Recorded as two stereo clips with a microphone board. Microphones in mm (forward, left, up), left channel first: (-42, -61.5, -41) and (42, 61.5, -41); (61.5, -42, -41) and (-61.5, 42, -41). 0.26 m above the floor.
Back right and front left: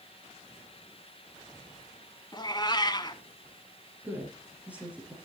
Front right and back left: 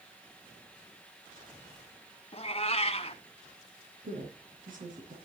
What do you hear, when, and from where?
2.3 s a cat meowing: 70° right, 0.9 m
4.0 s a woman speaking: 135° left, 3.5 m